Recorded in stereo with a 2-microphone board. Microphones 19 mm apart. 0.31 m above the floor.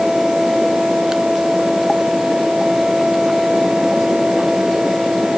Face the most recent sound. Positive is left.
No sound to turn to.